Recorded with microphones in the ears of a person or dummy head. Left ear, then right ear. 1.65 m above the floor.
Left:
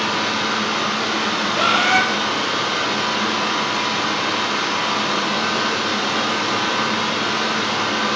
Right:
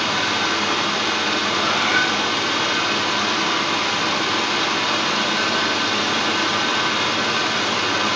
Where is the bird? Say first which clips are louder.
Left 5 dB; 60° left (ahead or behind), 0.7 m.